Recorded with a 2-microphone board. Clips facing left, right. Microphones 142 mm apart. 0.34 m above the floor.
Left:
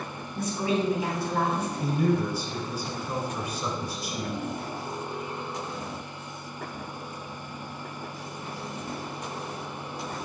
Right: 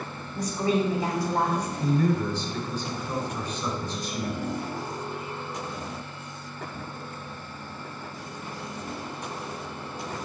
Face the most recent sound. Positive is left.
turn(degrees=10)  # may be behind; listen again after turning